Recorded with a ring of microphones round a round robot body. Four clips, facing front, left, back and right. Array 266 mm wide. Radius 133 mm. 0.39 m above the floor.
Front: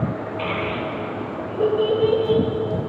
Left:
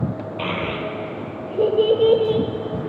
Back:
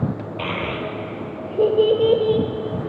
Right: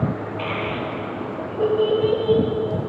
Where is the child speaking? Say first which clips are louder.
Left 3 dB, front 1 dB; 135° left, 1.0 m.